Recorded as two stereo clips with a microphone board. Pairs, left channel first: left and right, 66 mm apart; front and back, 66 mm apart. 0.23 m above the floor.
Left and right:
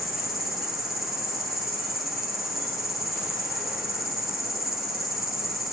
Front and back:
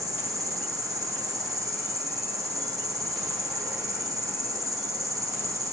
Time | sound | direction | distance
0.0 | an insect | 175° right | 0.7 m